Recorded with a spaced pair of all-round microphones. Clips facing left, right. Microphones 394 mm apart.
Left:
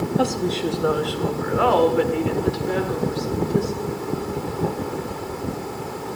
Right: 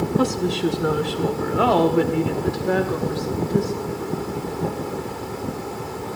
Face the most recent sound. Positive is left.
turn(degrees=-75)  # may be behind; listen again after turning